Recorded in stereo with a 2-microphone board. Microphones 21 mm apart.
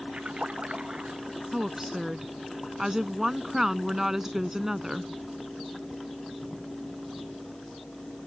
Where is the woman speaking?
20° right (ahead or behind).